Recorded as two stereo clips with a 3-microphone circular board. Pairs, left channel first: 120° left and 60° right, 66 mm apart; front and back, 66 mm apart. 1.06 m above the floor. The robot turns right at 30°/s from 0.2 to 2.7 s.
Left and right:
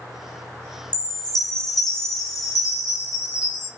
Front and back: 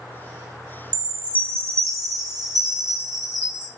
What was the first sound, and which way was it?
A chime, 105° left.